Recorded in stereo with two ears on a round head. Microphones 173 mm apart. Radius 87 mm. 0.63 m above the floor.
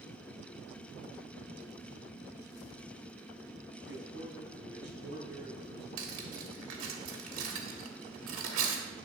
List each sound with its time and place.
3.8 s a man speaking: 70° right (ahead or behind), 4 m
6.0 s cutlery clinking: 80° right, 1.6 m